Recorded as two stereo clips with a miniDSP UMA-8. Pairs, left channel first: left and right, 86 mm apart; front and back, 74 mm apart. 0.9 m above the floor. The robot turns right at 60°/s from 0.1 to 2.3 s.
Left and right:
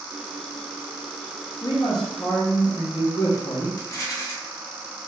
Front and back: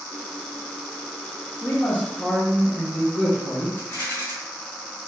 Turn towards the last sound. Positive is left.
turn(degrees=50)